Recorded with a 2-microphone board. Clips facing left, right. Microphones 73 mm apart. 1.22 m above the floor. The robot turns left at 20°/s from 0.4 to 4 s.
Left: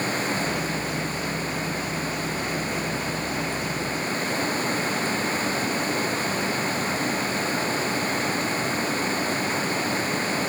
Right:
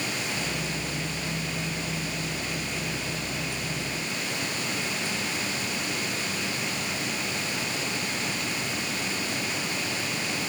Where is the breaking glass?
No breaking glass in this recording.